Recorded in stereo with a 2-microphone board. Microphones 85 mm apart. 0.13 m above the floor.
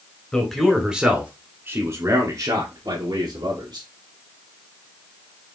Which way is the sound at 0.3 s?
10° left (ahead or behind).